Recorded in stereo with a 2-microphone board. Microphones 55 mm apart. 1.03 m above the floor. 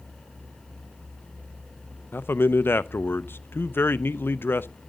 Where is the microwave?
I don't hear a microwave.